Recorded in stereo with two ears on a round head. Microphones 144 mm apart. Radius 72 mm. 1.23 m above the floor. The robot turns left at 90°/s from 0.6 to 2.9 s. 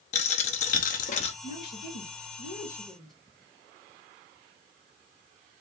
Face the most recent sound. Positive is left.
turn(degrees=0)